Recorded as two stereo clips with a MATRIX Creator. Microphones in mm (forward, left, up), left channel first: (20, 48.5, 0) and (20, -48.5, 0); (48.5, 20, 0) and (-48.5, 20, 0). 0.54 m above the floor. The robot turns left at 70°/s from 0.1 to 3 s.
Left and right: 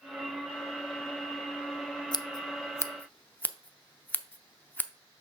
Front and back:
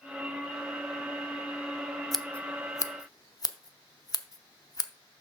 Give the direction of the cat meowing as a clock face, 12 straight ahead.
I don't hear a cat meowing.